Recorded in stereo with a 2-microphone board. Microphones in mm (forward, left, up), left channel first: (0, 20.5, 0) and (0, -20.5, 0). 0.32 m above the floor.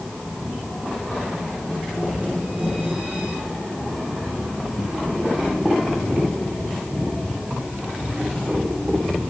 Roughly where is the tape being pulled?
I don't hear tape being pulled.